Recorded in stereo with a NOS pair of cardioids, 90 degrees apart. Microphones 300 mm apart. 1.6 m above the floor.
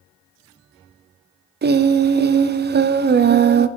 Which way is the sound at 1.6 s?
35° right.